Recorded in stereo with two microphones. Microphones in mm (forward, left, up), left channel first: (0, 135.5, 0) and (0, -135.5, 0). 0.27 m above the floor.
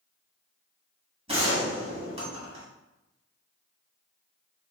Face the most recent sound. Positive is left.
turn(degrees=-20)  # may be behind; listen again after turning